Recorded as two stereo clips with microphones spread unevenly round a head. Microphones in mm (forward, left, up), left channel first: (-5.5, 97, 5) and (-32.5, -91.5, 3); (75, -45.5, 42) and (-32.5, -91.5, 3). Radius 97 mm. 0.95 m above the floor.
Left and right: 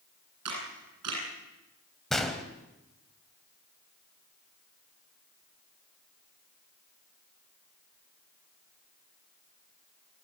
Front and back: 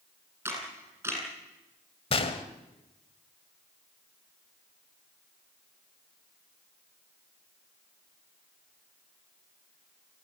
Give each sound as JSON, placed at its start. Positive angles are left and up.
{"t": 0.5, "sound": "a camera shutter", "azimuth_deg": -85, "distance_m": 9.0}
{"t": 2.1, "sound": "a gunshot", "azimuth_deg": -5, "distance_m": 1.7}